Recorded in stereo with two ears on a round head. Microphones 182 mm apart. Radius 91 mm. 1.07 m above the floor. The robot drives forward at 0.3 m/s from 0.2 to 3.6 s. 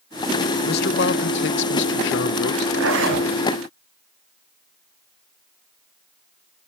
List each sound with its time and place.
0.7 s a man speaking: 50° left (ahead or behind), 0.7 m; by 2.7 s 55° left (ahead or behind), 0.7 m
2.8 s a zipper: 70° right (ahead or behind), 5.5 m; by 3.3 s 65° right (ahead or behind), 5.5 m